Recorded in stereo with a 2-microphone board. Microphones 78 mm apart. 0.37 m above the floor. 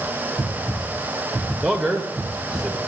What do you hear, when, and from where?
1.6 s a man speaking: 5° right (ahead or behind), 1.6 m